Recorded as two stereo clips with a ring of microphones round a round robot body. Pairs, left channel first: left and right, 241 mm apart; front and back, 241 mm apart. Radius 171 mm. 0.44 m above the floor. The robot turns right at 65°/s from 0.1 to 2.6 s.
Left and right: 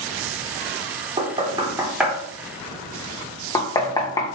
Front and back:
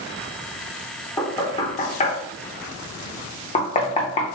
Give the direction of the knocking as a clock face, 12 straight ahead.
2 o'clock.